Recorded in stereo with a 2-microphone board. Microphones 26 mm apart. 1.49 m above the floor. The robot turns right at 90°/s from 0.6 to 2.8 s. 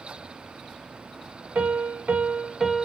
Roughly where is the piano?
Behind right.